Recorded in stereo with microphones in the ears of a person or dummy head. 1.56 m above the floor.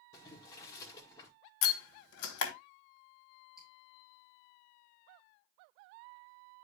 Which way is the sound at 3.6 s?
Centre (ahead or behind).